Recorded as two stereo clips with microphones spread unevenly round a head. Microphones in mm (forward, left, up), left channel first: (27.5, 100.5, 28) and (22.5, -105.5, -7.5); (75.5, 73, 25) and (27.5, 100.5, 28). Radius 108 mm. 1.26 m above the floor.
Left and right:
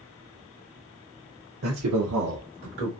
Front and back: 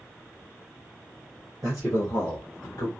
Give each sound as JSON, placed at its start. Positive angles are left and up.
{"t": 1.6, "sound": "a man speaking", "azimuth_deg": -135, "distance_m": 0.7}